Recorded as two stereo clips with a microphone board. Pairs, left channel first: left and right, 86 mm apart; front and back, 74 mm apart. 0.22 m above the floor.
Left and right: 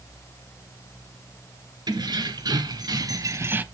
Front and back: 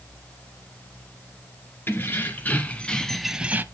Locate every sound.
1.9 s keys jangling: 60° right, 2 m; by 3.6 s 145° right, 0.7 m